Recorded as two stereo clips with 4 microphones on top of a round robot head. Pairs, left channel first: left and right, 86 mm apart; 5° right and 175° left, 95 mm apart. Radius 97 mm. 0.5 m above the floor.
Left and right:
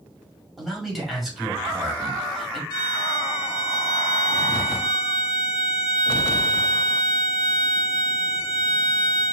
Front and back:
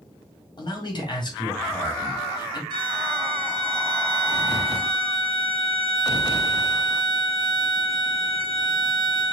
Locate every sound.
0.6 s a man speaking: 5° right, 1.9 m
2.7 s a violin: 135° left, 1.5 m